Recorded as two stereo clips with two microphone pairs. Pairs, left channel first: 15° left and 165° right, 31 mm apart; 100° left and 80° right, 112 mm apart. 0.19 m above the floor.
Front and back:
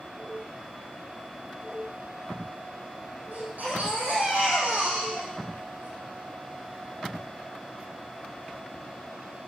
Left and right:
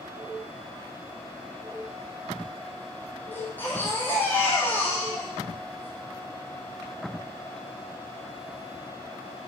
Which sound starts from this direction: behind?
A baby crying, at 3.3 s.